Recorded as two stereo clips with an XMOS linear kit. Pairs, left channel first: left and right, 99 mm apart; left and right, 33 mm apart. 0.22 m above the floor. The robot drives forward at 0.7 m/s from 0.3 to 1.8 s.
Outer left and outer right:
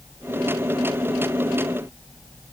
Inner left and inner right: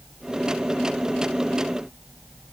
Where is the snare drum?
No snare drum in this recording.